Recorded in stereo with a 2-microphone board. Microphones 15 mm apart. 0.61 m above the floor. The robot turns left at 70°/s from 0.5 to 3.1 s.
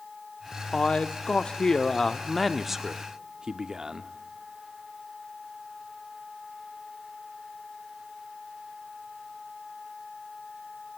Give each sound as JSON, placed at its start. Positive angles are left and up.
{"t": 0.7, "sound": "a man speaking", "azimuth_deg": 120, "distance_m": 0.9}